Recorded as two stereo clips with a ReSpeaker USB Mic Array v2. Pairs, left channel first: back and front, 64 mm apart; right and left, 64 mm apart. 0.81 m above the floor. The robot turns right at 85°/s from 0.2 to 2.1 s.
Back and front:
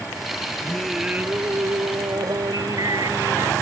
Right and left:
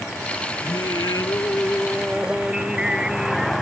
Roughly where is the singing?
Right.